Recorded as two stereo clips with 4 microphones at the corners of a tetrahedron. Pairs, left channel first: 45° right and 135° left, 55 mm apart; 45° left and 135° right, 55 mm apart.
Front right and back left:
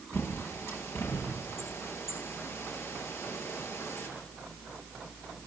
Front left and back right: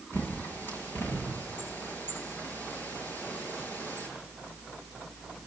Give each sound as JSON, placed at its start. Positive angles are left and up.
{"t": 0.1, "sound": "a bird", "azimuth_deg": -5, "distance_m": 8.0}